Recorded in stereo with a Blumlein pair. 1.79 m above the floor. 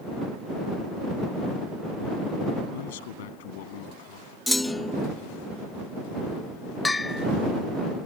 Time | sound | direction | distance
2.7 | a man speaking | 55° left | ?
4.5 | a clunk | 5° left | ?
6.8 | a bell | 10° left | ?